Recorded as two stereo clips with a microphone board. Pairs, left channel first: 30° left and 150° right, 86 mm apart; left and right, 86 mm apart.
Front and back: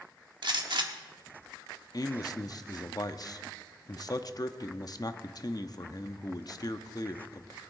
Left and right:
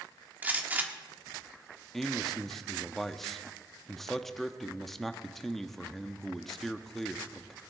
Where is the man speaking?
5° left, 0.7 m.